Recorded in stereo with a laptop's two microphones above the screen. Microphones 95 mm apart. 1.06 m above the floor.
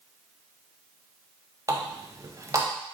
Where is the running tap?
35° right (ahead or behind), 0.6 m.